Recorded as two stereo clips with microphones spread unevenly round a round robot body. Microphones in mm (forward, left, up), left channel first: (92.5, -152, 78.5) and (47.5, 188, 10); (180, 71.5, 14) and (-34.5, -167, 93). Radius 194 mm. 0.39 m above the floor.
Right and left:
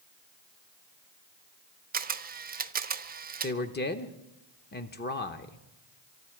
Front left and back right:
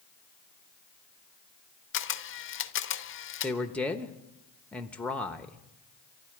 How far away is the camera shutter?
About 1.0 m.